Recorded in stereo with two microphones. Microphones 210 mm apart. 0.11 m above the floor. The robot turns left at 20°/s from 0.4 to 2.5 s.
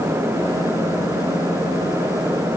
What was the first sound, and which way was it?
Only background noise.